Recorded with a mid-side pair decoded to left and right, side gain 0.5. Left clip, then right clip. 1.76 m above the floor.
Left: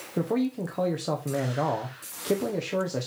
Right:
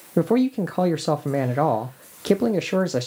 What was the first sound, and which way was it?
A man speaking, 45° right.